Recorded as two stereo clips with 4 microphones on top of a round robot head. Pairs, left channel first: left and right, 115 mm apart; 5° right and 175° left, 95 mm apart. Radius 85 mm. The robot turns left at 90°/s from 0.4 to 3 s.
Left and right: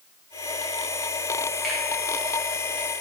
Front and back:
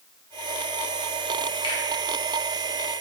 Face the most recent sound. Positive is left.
turn(degrees=-120)